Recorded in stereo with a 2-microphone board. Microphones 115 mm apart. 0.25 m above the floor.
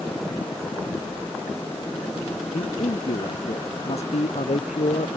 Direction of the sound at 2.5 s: 80° left.